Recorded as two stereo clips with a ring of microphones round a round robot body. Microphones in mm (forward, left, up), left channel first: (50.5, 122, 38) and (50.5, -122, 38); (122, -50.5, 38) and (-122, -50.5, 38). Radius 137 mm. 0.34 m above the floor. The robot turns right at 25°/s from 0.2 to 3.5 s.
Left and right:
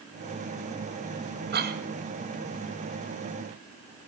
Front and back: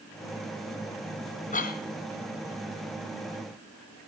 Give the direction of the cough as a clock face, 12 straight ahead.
2 o'clock.